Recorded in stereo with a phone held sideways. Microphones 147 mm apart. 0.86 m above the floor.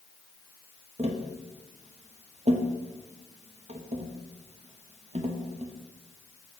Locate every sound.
1.0 s tapping: 45° right (ahead or behind), 0.7 m